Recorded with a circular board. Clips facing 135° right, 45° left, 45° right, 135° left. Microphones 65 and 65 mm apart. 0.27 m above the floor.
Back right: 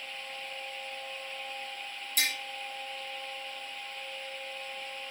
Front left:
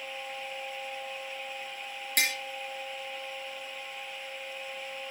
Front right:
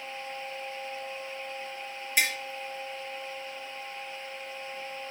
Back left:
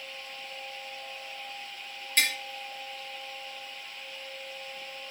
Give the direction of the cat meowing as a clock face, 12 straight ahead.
No cat meowing in this recording.